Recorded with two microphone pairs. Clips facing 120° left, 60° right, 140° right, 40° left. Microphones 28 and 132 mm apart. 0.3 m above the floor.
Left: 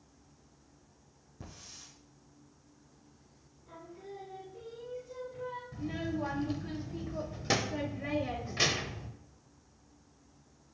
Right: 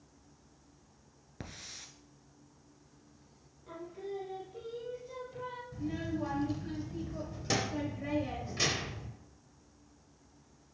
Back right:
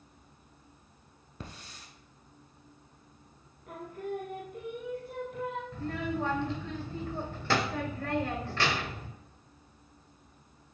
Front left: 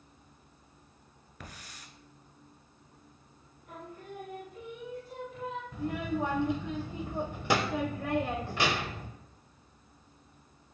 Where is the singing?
110° right, 2 m.